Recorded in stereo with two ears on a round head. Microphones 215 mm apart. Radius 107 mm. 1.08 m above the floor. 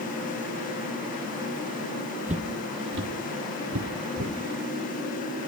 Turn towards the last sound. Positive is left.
turn(degrees=-60)  # may be behind; listen again after turning